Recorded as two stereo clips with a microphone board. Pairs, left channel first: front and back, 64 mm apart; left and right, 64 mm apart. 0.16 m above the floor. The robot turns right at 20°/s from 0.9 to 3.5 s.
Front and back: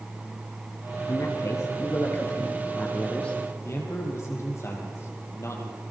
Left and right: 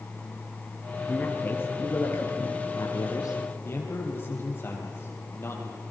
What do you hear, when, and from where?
1.1 s a man speaking: 25° left, 4 m; by 3.4 s 70° left, 4 m
3.6 s a man speaking: 40° left, 5.5 m